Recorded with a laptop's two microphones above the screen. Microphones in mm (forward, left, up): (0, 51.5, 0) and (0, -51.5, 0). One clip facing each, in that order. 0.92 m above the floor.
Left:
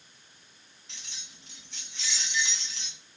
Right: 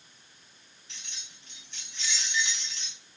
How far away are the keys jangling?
About 1.3 m.